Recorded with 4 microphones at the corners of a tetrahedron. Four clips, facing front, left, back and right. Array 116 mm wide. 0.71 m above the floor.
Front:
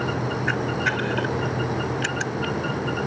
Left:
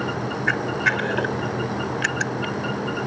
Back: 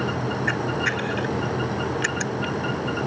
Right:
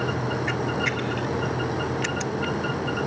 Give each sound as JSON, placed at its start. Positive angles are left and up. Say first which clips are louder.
{"t": 0.5, "sound": "a camera shutter", "louder": "left 4 dB, front 2 dB", "azimuth_deg": 80}